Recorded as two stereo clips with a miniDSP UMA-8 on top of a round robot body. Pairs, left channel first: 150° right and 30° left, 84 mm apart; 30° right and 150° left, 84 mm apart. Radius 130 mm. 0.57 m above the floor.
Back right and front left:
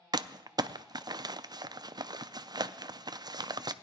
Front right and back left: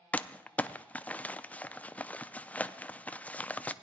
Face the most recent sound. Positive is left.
turn(degrees=40)